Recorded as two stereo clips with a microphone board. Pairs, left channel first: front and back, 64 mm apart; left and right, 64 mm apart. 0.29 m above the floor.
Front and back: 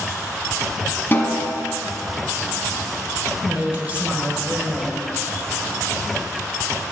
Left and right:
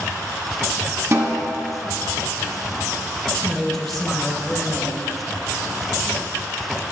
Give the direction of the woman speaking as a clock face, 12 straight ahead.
6 o'clock.